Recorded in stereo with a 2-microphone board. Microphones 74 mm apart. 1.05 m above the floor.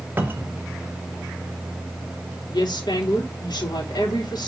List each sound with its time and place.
0.2 s a cupboard door: 25° right (ahead or behind), 1.3 m
2.5 s a woman speaking: 75° left (ahead or behind), 3 m